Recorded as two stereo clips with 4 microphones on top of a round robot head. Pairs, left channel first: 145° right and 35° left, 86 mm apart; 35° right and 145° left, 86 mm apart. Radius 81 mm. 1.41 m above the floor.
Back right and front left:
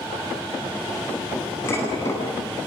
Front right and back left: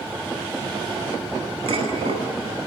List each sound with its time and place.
1.7 s dishes clattering: 155° left, 9.5 m